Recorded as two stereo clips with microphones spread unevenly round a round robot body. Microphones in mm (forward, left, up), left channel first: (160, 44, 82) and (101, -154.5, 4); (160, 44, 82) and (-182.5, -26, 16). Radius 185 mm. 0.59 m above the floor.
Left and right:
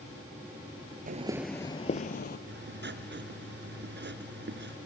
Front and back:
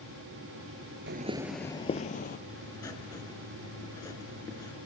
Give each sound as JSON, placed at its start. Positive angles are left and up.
{"t": 1.1, "sound": "footsteps", "azimuth_deg": -140, "distance_m": 0.5}
{"t": 2.5, "sound": "writing", "azimuth_deg": -65, "distance_m": 2.5}